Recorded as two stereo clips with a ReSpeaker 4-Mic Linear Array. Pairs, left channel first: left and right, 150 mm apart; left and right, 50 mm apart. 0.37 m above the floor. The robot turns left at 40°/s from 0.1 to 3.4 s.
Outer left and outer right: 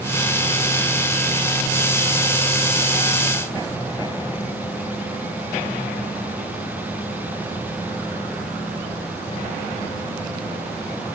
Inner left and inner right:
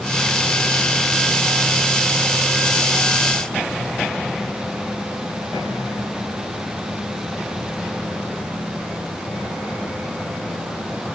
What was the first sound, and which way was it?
Only background noise.